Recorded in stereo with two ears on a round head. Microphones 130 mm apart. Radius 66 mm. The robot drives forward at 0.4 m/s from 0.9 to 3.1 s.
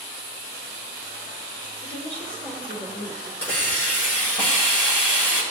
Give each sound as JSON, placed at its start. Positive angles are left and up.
{"t": 1.8, "sound": "a woman speaking", "side_deg": 10, "distance_m": 4.5}
{"t": 3.4, "sound": "a hiss", "side_deg": 15, "distance_m": 6.0}